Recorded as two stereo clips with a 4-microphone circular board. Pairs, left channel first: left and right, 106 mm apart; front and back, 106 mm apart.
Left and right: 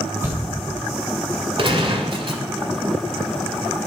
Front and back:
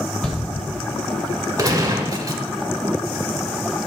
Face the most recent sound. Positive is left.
turn(degrees=-120)